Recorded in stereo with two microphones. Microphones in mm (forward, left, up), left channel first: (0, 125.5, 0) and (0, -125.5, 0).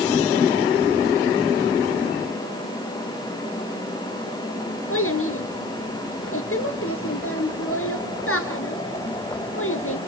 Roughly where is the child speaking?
Left.